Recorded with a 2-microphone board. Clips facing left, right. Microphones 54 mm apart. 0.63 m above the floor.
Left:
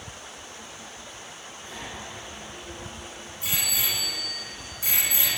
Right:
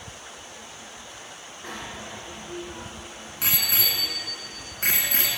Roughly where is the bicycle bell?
Right.